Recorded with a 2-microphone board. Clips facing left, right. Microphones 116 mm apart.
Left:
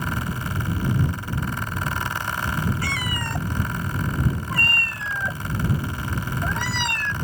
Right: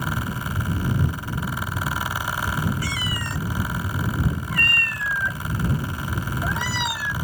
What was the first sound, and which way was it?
A cat meowing, 55° left (ahead or behind).